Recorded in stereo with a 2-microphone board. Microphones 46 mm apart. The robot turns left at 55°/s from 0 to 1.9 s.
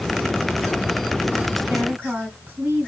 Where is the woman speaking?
45° right (ahead or behind), 2.5 m; by 2.9 s 35° right (ahead or behind), 2.5 m.